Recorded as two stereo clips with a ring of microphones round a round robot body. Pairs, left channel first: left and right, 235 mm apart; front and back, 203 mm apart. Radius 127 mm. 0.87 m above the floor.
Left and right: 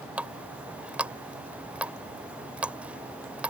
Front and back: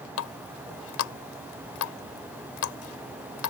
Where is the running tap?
5° right.